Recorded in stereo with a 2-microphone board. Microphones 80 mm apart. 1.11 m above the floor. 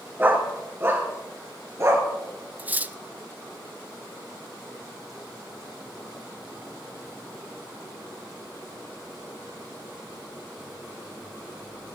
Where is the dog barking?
25° right (ahead or behind), 4 m; by 2.1 s 40° right (ahead or behind), 5 m.